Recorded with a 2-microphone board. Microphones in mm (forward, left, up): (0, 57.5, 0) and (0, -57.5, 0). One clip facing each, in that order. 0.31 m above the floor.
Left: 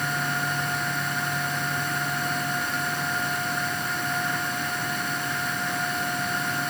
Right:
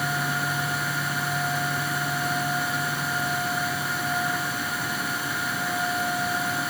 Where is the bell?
I don't hear a bell.